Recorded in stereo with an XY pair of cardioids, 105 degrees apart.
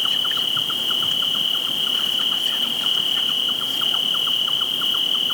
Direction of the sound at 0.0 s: 15° left.